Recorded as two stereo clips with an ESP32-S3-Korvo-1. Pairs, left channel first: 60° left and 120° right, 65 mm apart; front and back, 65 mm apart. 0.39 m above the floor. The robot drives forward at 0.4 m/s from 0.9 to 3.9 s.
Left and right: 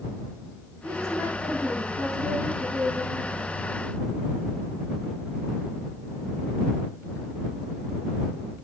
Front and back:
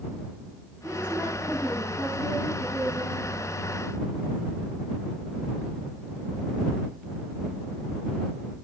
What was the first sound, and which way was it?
A woman speaking, 130° right.